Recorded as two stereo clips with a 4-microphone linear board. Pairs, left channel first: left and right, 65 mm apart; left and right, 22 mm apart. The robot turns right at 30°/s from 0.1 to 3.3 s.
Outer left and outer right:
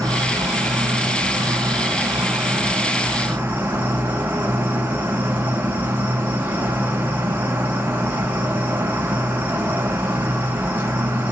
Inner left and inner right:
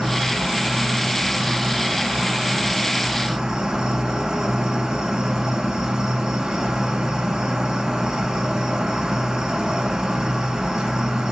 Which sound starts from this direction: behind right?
An insect, at 0.0 s.